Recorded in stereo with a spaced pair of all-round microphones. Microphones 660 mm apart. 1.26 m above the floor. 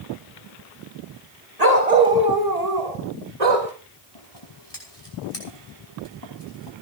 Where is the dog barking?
70° right (ahead or behind), 2.5 m; by 3.7 s 55° right (ahead or behind), 4 m.